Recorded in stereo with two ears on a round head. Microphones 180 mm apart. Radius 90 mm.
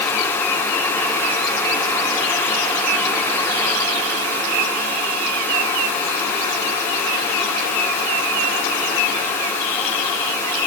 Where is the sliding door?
No sliding door in this recording.